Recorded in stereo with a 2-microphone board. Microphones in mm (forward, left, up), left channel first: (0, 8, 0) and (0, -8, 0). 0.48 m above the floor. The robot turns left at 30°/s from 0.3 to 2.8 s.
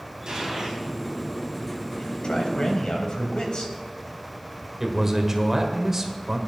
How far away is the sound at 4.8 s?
About 1.6 m.